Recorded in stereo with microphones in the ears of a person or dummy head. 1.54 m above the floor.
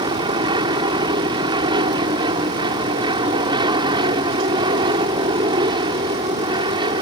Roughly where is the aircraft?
Right.